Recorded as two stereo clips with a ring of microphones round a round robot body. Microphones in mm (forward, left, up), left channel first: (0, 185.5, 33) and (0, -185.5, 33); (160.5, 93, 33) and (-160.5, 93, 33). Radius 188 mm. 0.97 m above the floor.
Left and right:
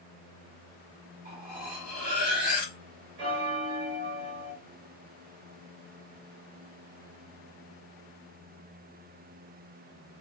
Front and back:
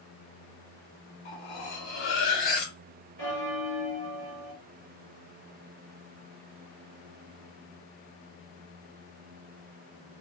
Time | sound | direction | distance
1.2 | cutlery clinking | 20° right | 1.3 m
3.2 | a bell | 85° right | 1.4 m